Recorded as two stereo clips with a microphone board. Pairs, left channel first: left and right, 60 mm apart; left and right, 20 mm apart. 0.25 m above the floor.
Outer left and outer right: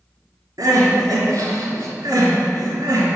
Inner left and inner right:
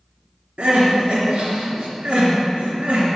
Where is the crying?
70° right (ahead or behind), 3 m.